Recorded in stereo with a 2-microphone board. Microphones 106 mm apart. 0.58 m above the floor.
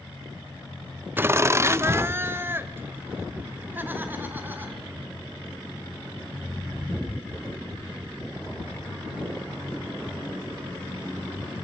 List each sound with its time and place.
1.2 s laughter: 20° right (ahead or behind), 0.6 m